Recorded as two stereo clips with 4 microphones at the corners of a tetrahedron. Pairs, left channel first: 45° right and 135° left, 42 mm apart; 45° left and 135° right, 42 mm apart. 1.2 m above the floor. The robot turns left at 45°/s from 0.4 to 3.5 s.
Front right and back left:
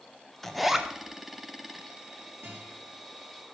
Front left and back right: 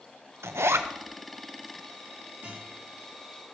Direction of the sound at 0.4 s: 130° right.